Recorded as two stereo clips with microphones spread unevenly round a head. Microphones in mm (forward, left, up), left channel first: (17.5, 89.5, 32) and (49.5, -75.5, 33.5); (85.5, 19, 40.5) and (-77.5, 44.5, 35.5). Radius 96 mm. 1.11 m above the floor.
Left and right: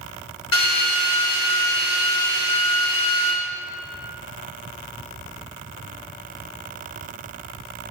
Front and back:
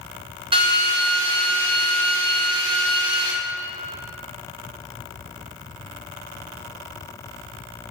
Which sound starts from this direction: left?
A drill, at 0.5 s.